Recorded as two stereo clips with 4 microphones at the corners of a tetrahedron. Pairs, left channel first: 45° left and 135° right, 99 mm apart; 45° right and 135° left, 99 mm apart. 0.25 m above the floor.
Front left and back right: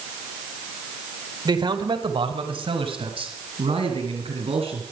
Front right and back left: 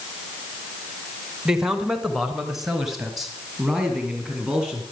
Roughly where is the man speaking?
Behind right.